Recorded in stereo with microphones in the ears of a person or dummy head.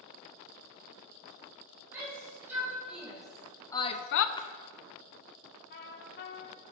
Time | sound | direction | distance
1.9 | a shout | 10° right (ahead or behind) | 3.5 m
4.4 | a splash | 25° left (ahead or behind) | 0.7 m
5.7 | a trumpet | 55° left (ahead or behind) | 1.4 m